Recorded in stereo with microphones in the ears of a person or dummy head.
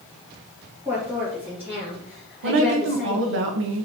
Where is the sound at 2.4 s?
60° right (ahead or behind), 0.9 m.